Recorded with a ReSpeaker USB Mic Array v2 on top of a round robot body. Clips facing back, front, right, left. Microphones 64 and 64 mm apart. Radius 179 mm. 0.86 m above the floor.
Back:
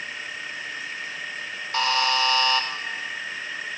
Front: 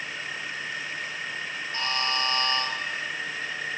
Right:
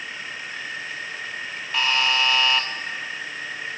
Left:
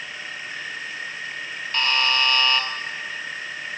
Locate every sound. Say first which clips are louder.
1.7 s a buzzer: back 7 dB, even; 175° right, 2.5 m